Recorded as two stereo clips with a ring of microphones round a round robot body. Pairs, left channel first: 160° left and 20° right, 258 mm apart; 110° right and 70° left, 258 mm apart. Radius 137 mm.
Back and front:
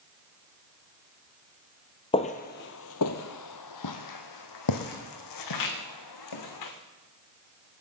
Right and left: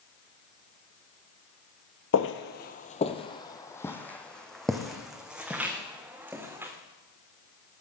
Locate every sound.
2.1 s footsteps: 135° right, 0.8 m; by 6.7 s 150° left, 3 m